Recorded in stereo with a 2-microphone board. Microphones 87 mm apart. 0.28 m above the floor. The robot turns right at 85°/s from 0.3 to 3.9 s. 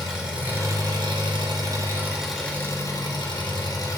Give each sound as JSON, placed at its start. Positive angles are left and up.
{"t": 0.0, "sound": "an engine running", "azimuth_deg": -170, "distance_m": 2.5}